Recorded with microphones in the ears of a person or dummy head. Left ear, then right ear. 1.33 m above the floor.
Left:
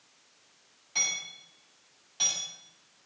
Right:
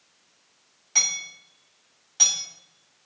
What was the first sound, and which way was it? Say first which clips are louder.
Hammering: right 6 dB; 50° right (ahead or behind).